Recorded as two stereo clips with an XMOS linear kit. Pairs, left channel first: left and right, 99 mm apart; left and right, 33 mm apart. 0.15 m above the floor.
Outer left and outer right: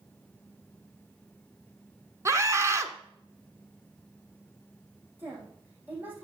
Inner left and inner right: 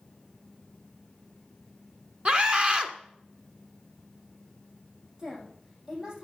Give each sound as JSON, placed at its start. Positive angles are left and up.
{"t": 2.2, "sound": "a scream", "side_deg": -30, "distance_m": 1.4}
{"t": 5.2, "sound": "a woman speaking", "side_deg": -20, "distance_m": 6.5}